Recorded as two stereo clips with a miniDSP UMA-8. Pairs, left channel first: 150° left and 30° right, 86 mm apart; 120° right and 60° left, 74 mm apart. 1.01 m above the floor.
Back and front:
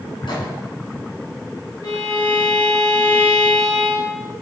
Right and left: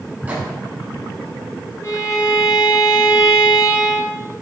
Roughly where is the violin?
Behind.